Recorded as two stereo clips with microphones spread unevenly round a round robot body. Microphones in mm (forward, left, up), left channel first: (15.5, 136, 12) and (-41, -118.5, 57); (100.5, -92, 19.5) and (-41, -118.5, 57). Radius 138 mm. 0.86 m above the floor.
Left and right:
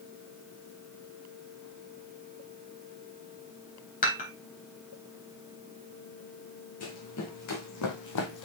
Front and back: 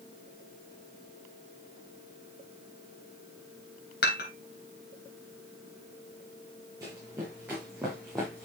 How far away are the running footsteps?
About 3 m.